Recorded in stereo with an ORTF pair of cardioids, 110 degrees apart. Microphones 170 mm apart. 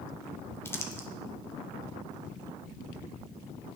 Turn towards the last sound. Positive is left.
turn(degrees=15)